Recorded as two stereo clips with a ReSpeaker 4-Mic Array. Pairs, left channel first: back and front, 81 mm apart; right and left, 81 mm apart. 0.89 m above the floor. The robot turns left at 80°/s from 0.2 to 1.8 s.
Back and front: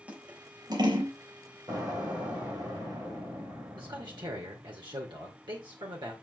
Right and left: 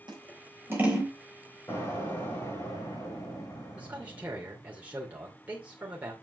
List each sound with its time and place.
0.1 s scissors: 70° left, 3.5 m; by 1.1 s 5° right, 3.5 m
1.7 s an explosion: 30° right, 7.5 m; by 4.7 s 40° right, 7.5 m
3.8 s a man speaking: 20° left, 2.5 m